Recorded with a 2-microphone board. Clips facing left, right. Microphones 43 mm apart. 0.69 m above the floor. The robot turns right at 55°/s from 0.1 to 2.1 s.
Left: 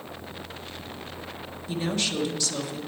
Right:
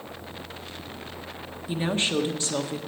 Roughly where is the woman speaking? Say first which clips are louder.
Right 2 dB; centre.